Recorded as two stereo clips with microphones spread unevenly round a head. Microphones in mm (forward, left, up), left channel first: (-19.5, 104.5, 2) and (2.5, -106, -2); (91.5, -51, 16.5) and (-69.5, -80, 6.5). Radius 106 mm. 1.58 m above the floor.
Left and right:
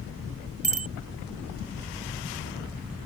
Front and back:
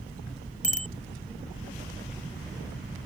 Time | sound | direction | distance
0.6 | a bicycle bell | 25° right | ?